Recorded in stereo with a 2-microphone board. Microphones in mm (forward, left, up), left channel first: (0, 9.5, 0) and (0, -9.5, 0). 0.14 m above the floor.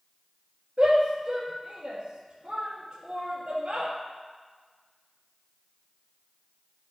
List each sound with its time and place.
0.8 s a shout: 55° right (ahead or behind), 2 m